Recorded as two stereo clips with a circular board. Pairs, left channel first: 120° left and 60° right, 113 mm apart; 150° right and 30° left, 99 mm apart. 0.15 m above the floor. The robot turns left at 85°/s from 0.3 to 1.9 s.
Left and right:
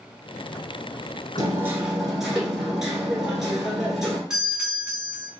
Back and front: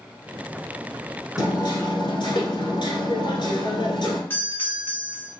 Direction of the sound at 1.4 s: 100° right.